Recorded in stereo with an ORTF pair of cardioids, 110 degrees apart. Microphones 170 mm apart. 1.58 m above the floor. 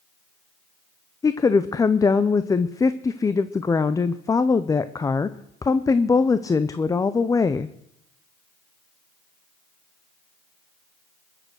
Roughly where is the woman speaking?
Ahead.